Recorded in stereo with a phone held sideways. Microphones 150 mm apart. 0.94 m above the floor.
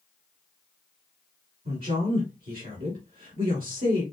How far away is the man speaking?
About 2 m.